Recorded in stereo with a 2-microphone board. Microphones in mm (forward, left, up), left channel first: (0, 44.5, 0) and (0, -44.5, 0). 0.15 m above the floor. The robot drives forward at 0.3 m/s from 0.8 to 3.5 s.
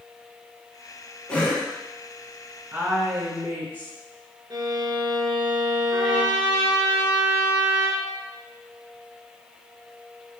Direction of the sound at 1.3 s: 15° left (ahead or behind).